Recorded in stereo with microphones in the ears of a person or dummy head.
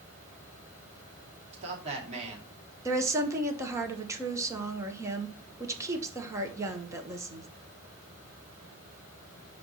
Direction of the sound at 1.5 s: 35° right (ahead or behind).